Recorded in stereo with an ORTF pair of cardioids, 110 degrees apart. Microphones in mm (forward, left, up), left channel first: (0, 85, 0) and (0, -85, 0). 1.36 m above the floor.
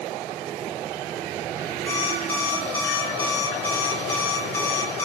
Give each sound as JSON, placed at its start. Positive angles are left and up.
{"t": 1.9, "sound": "an alarm clock", "azimuth_deg": 15, "distance_m": 2.5}